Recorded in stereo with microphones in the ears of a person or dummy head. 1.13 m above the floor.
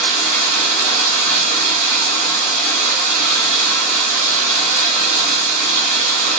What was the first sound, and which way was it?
Running water, 55° right (ahead or behind).